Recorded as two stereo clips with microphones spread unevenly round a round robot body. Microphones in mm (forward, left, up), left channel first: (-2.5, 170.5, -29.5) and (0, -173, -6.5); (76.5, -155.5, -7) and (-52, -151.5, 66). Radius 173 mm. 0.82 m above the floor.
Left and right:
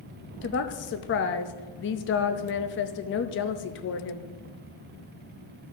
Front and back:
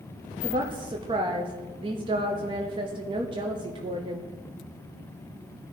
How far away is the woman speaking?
About 0.6 m.